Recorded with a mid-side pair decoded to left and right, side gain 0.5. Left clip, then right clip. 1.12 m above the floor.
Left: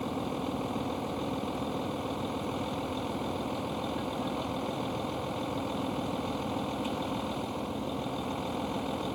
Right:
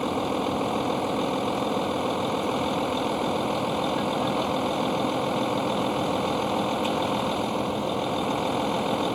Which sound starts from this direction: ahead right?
A vehicle, at 0.0 s.